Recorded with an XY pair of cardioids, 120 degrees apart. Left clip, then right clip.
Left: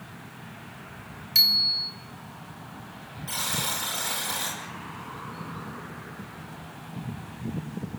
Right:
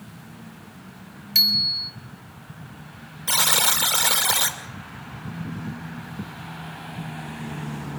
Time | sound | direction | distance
1.4 | a bicycle bell | 15° right | 3 m
3.3 | a buzzer | 65° right | 2.5 m